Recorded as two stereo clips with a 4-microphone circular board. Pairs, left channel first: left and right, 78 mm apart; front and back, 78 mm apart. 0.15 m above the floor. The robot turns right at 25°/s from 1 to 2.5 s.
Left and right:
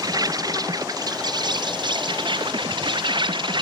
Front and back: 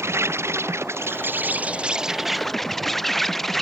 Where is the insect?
125° right; by 3.6 s 90° right.